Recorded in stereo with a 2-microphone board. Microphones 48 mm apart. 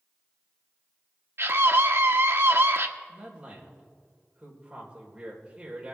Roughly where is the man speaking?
Right.